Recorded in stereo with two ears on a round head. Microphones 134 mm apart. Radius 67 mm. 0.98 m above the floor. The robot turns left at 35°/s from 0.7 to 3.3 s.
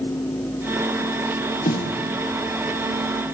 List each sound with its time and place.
1.6 s a snare drum: 50° left (ahead or behind), 8 m; by 2.0 s 60° left (ahead or behind), 8 m